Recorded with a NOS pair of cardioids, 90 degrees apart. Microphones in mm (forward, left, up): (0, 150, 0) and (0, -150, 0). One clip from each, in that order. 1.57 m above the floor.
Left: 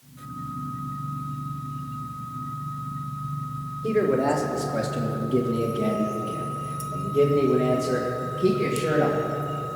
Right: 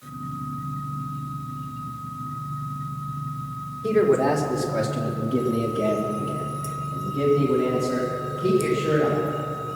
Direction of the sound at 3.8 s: 15° right.